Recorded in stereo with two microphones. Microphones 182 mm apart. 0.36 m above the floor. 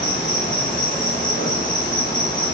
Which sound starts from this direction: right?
An insect, at 0.0 s.